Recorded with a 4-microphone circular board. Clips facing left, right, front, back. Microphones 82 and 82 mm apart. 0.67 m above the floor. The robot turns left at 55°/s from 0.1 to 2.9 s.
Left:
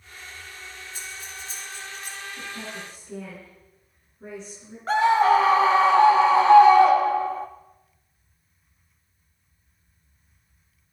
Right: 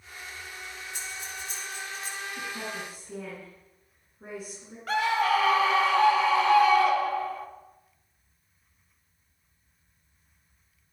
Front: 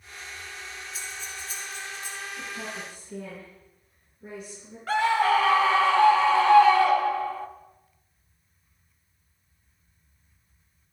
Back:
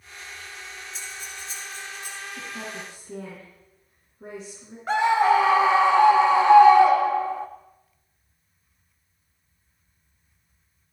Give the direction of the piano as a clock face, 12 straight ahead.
No piano in this recording.